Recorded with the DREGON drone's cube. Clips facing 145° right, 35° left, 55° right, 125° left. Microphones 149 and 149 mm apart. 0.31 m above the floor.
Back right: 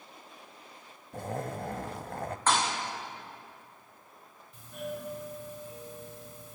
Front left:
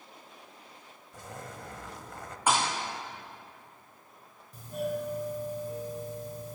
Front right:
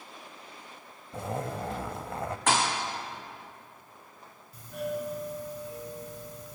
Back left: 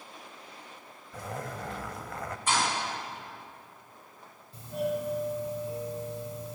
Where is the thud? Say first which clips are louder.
Front left 1 dB, front right 2 dB; 45° right, 4.5 m.